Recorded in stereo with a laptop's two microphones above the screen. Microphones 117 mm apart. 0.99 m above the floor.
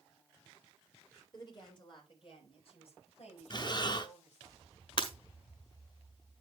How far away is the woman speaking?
About 4.5 m.